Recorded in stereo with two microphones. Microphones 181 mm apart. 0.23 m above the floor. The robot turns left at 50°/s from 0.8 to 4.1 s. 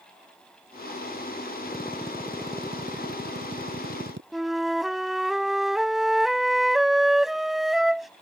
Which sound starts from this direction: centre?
A flute, at 4.3 s.